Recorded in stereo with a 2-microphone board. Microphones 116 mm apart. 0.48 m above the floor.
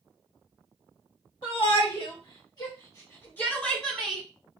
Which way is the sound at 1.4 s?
60° left (ahead or behind).